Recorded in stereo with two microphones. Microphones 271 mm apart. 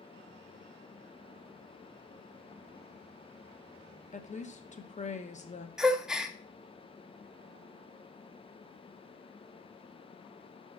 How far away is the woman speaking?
About 0.7 m.